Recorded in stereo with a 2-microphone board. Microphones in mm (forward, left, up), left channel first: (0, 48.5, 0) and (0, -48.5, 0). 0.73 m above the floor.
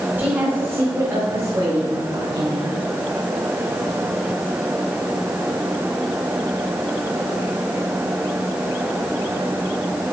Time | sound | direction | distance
0.2 | a woman speaking | 15° right (ahead or behind) | 3 m